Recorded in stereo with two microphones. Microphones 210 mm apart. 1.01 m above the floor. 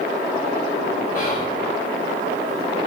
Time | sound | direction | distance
1.1 | whispering | 45° left (ahead or behind) | 3 m